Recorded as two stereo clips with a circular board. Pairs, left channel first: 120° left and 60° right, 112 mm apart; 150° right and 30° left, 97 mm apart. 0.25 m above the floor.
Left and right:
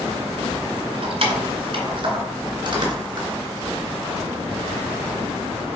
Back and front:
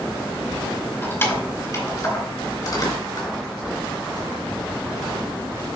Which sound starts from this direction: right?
Keys jangling, at 1.0 s.